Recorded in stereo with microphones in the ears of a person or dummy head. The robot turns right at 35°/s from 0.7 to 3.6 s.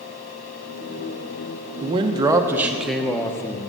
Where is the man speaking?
40° right, 0.9 m; by 3.7 s 25° left, 0.9 m.